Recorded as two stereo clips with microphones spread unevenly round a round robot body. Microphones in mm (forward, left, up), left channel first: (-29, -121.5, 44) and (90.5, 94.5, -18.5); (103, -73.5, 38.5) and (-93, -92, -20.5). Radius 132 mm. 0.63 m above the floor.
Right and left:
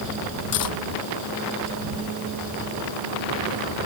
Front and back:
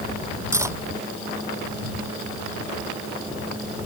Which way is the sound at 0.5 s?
100° right.